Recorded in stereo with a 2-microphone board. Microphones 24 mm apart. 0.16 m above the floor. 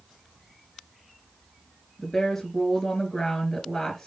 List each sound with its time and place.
2.0 s a woman speaking: 20° left (ahead or behind), 2.5 m